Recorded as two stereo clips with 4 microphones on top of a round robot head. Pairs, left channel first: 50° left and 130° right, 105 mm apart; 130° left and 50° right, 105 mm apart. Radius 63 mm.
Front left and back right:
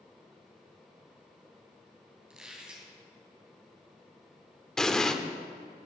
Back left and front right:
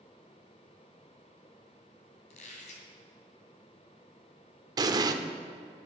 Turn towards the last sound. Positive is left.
turn(degrees=-30)